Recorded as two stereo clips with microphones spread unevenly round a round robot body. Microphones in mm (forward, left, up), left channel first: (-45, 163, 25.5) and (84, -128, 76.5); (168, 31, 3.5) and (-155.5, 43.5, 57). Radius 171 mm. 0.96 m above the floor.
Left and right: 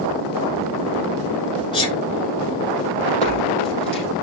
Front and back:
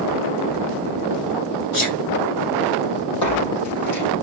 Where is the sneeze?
40° left, 6.5 m.